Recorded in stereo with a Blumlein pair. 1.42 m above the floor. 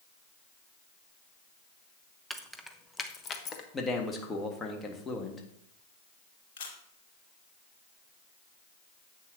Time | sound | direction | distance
2.3 | keys jangling | 10° right | 0.8 m
3.7 | a man speaking | 15° left | 1.7 m
6.6 | a camera shutter | 55° left | 2 m